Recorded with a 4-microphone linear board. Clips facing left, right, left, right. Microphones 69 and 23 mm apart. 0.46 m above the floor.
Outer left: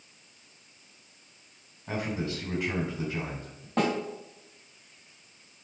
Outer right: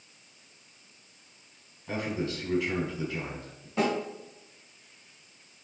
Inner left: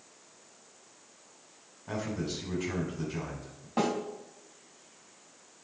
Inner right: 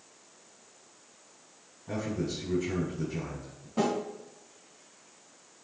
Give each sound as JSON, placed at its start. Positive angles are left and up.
{"t": 1.9, "sound": "a man speaking", "side_deg": 30, "distance_m": 3.5}
{"t": 3.8, "sound": "a snare drum", "side_deg": 60, "distance_m": 3.5}